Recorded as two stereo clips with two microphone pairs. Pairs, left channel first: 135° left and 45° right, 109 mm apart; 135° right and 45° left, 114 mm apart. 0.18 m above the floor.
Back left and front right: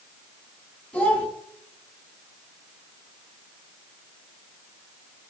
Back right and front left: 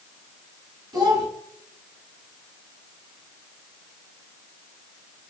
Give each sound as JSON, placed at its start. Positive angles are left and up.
{"t": 0.9, "sound": "a child speaking", "azimuth_deg": 65, "distance_m": 0.9}